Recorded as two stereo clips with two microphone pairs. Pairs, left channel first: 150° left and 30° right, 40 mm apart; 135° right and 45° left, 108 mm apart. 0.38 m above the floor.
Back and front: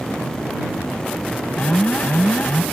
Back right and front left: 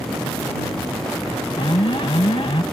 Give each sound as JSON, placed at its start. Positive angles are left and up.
{"t": 1.6, "sound": "an alarm", "azimuth_deg": -160}